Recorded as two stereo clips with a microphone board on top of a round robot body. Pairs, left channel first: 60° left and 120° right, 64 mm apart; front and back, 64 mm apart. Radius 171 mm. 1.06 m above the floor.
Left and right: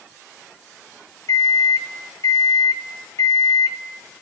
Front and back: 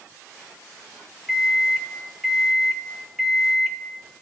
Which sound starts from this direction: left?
A microwave, at 1.3 s.